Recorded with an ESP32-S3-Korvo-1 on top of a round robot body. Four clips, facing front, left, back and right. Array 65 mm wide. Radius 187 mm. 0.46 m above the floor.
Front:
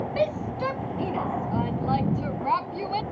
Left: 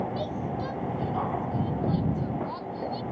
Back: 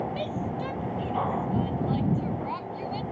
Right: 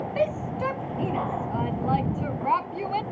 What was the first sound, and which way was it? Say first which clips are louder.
A shout: right 5 dB, front 5 dB; 50° right.